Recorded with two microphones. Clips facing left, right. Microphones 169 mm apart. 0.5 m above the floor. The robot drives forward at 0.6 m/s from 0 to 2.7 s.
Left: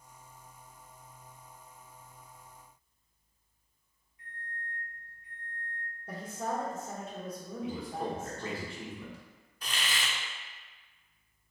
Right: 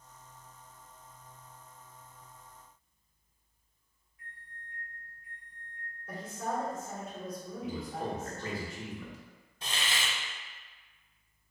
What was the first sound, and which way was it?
A microwave, 20° left (ahead or behind).